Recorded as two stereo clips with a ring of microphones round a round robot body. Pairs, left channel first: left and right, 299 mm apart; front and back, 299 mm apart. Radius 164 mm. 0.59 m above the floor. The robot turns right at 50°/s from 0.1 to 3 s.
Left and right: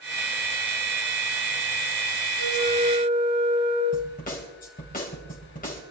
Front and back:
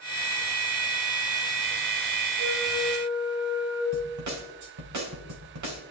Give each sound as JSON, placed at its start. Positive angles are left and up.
{"t": 2.4, "sound": "a flute", "azimuth_deg": -130, "distance_m": 9.0}
{"t": 3.9, "sound": "a snare drum", "azimuth_deg": 155, "distance_m": 3.0}